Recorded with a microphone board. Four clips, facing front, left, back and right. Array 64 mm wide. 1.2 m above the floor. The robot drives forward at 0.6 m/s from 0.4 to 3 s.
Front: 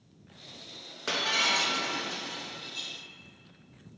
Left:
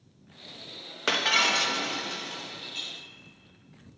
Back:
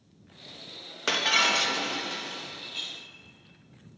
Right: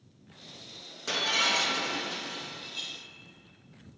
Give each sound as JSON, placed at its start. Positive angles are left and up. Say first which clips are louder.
{"t": 1.1, "sound": "breaking glass", "louder": "left 4 dB, back 4 dB", "azimuth_deg": 115, "distance_m": 0.6}